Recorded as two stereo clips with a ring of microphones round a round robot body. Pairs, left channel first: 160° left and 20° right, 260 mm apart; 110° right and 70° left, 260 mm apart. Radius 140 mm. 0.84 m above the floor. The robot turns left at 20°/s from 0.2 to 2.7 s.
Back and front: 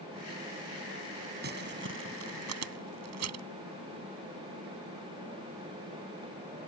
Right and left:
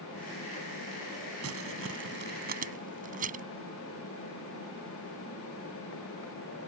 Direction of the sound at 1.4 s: 30° left.